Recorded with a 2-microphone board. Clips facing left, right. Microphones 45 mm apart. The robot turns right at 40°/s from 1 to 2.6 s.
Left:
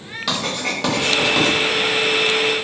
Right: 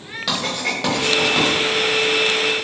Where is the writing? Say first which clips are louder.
Even; centre (ahead or behind), 1.0 m; by 1.5 s 10° right (ahead or behind), 1.0 m.